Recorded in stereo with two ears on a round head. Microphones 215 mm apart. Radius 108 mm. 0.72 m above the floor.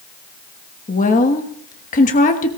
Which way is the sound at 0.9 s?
30° left (ahead or behind).